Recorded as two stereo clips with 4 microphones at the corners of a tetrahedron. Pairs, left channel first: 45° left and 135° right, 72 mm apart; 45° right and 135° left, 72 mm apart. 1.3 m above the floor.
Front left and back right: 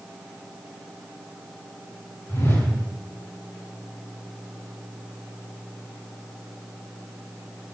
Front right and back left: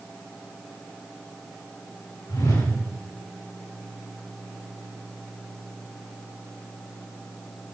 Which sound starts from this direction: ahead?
A whoosh, at 2.3 s.